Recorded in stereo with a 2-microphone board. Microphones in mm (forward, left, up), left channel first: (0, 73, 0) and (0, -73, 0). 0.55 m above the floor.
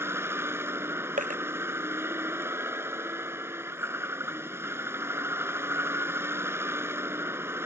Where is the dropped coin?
70° right (ahead or behind).